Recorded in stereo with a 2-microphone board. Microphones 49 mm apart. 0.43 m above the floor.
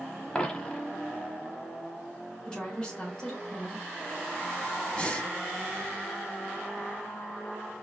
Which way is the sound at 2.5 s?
15° left (ahead or behind).